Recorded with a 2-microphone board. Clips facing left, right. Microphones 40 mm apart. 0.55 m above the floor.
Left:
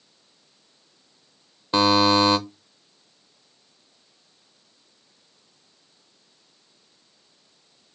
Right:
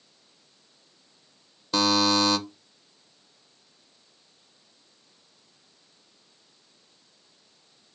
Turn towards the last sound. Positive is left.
turn(degrees=25)  # may be behind; listen again after turning